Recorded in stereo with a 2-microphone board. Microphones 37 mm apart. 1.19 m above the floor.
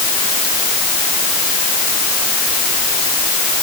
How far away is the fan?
No fan in this recording.